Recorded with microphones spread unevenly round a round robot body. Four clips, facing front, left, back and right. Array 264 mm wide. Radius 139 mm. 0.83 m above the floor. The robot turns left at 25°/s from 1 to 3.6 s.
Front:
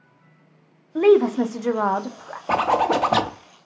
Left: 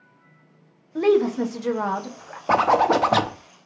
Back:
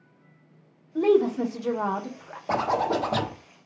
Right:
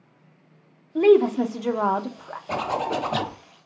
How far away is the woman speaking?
About 0.7 m.